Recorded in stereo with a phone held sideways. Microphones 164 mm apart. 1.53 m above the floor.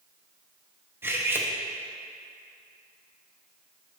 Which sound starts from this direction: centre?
Cutlery clinking, at 1.0 s.